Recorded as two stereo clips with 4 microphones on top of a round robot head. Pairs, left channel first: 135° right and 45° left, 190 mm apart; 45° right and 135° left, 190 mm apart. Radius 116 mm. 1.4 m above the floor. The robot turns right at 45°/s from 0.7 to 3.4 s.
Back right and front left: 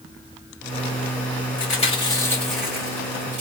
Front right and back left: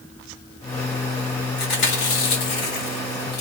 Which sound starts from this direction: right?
Chewing, at 1.6 s.